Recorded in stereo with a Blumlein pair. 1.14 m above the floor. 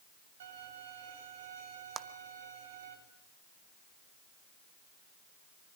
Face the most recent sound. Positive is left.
turn(degrees=-20)